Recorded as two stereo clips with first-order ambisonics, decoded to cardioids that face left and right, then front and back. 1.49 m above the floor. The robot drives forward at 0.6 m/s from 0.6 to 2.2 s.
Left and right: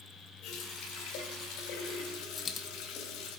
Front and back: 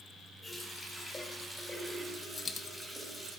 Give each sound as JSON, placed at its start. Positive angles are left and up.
{"t": 0.4, "sound": "a running tap", "azimuth_deg": 80, "distance_m": 3.0}
{"t": 2.4, "sound": "a dropped coin", "azimuth_deg": 45, "distance_m": 0.8}